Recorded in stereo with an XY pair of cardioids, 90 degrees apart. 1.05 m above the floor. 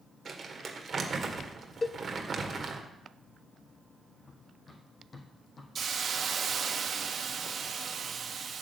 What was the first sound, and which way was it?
Crumpling, 45° right.